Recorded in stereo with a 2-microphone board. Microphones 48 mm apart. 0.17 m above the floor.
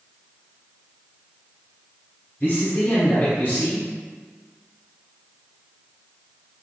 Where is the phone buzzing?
No phone buzzing in this recording.